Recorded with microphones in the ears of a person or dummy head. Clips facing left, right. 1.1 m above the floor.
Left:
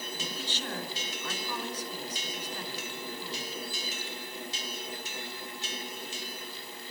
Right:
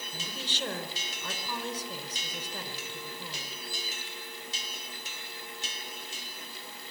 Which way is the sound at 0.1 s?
40° right (ahead or behind).